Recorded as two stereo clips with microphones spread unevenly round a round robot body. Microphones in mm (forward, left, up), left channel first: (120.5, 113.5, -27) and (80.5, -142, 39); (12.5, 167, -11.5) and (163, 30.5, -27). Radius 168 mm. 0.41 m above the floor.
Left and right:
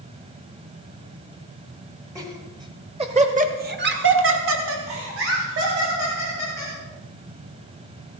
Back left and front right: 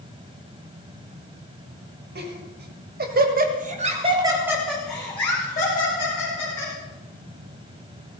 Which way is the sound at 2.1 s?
15° right.